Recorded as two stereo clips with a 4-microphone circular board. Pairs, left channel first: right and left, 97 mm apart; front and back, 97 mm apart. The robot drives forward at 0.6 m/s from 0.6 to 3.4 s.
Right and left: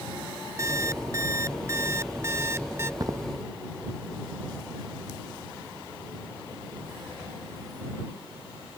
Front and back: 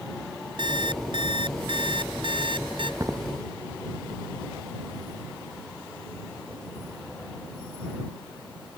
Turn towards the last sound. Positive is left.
turn(degrees=135)